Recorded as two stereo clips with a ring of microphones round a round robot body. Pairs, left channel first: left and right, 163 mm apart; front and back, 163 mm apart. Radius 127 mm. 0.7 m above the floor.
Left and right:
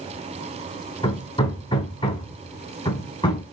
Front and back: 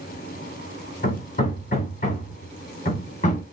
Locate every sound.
1.0 s hammering: 35° left, 3 m